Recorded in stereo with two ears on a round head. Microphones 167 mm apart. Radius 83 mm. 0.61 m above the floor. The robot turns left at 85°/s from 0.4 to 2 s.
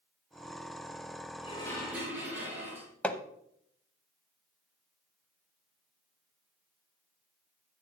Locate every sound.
1.4 s dishes clattering: 35° left, 7 m; by 2.9 s 15° right, 7 m
3.0 s hammering: 5° left (ahead or behind), 0.8 m